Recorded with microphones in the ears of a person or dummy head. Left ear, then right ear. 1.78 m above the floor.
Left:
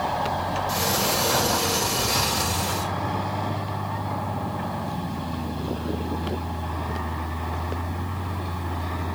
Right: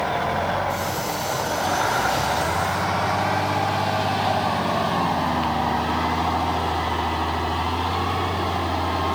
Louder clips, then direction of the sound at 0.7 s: Left 1 dB; 70° left (ahead or behind).